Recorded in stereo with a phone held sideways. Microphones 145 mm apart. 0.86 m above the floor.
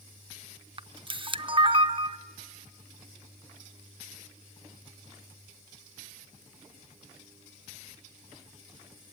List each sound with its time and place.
0.8 s a camera shutter: 35° right (ahead or behind), 0.5 m